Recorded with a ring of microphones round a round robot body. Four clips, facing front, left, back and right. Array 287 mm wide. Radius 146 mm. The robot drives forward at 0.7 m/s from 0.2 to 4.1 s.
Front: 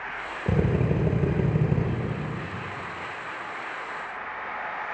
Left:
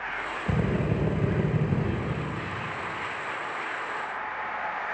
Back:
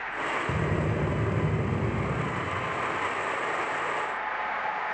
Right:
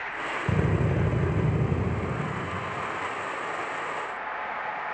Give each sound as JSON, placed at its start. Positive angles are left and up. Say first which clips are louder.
{"t": 0.5, "sound": "a drill", "louder": "even, front 3 dB", "azimuth_deg": -15, "distance_m": 6.0}